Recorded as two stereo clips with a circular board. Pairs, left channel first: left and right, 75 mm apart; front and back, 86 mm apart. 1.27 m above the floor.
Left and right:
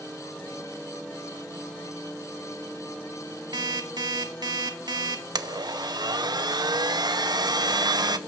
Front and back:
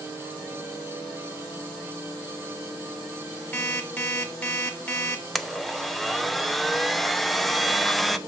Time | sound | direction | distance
3.5 | an alarm clock | 75° right | 1.6 m
5.3 | a blender | 90° right | 0.6 m